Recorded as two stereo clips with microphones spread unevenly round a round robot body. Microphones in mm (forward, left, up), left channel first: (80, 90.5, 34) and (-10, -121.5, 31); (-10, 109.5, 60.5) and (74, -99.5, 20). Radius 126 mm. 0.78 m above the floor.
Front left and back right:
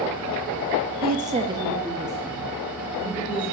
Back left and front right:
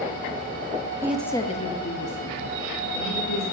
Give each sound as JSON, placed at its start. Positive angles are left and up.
{"t": 1.0, "sound": "a woman speaking", "azimuth_deg": -125, "distance_m": 0.8}